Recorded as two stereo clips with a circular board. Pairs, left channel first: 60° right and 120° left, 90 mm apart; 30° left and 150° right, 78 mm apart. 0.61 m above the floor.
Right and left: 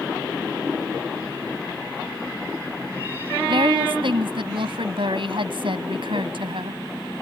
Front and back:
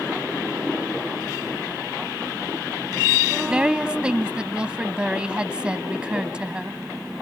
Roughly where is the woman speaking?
Behind left.